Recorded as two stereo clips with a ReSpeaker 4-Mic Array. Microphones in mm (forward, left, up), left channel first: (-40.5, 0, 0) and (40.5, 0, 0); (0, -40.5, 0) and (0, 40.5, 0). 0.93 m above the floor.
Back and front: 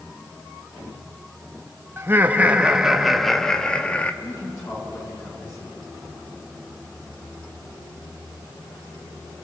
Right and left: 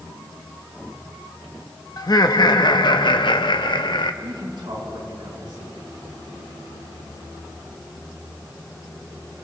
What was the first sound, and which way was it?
Laughter, 60° right.